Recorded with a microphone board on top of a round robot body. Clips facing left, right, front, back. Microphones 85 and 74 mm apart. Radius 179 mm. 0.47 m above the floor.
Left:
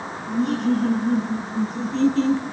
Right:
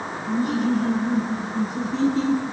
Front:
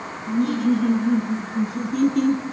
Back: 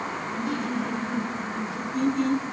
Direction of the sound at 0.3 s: 5° right.